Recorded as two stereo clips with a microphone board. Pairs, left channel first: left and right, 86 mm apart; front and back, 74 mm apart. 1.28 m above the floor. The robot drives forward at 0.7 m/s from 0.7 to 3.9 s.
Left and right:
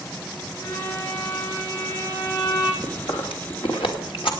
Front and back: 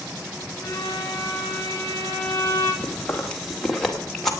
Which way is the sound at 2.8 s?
70° left.